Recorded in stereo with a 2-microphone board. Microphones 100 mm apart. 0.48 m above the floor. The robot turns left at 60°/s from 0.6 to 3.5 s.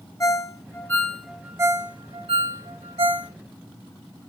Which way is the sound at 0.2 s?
30° left (ahead or behind).